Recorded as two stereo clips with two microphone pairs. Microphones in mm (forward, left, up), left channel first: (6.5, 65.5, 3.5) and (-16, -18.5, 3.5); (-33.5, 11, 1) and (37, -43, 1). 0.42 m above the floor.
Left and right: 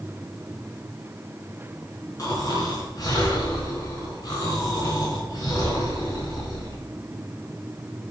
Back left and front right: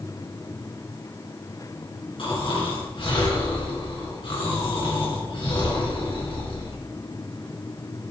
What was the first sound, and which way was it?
Snoring, 120° left.